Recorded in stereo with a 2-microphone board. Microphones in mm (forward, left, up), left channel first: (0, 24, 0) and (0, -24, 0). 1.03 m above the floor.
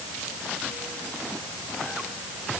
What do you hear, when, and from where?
Only background noise.